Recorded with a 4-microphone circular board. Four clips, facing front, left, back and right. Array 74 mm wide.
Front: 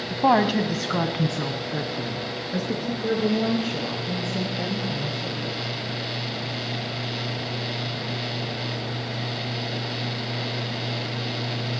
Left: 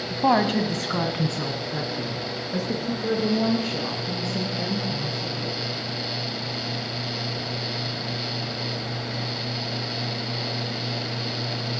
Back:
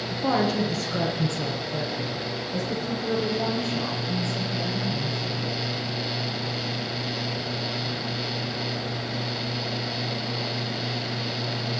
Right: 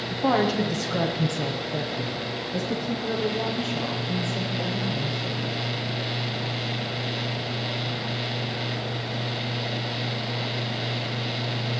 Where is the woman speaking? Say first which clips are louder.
Left 2 dB, front 5 dB; 25° left, 1.5 m; by 5.5 s 40° left, 6.5 m.